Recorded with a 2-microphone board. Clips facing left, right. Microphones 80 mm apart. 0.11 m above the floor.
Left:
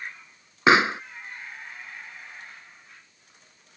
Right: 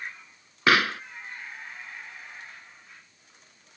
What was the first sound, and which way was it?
A pop, 20° left (ahead or behind).